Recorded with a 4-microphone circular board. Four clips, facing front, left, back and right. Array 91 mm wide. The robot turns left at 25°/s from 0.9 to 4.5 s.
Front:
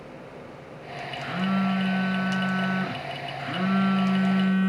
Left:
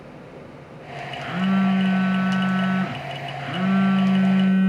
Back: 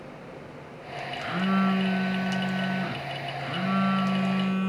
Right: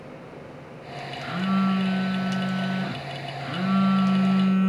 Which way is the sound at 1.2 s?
125° left.